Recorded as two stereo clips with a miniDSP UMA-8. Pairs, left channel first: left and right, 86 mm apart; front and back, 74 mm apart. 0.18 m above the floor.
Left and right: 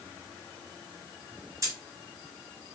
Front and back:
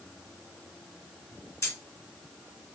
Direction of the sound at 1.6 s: 45° right.